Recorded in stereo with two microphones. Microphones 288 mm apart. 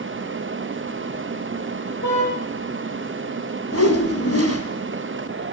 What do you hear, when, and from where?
2.0 s a car horn: 75° left (ahead or behind), 6.5 m
3.7 s a whoosh: 55° left (ahead or behind), 2.5 m